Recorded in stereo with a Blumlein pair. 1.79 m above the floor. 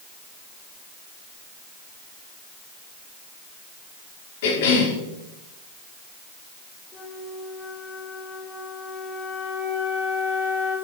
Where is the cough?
55° left, 5 m.